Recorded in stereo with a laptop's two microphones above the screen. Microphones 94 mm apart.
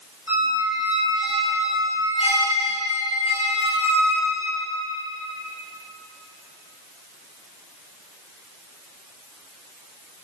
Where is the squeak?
75° left (ahead or behind), 3 m.